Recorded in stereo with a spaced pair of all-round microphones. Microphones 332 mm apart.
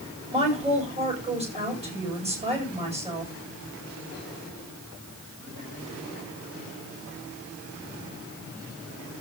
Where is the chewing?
I don't hear chewing.